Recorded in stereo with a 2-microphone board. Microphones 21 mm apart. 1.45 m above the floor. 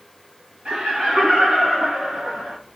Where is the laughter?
75° right (ahead or behind), 1.4 m; by 2.6 s 80° right, 2.5 m.